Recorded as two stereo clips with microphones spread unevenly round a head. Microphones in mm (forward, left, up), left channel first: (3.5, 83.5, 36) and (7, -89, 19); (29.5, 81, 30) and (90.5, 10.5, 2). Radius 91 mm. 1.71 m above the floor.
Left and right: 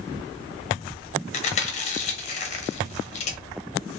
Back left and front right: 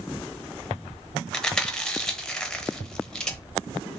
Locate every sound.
1.3 s chewing: 75° left, 0.7 m